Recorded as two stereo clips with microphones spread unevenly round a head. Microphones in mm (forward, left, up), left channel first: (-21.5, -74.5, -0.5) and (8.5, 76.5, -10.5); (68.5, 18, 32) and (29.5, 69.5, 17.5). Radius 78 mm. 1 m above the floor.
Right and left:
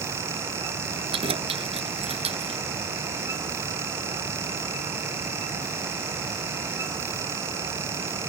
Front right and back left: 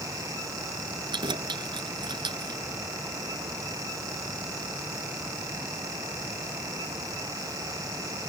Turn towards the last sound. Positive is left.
turn(degrees=135)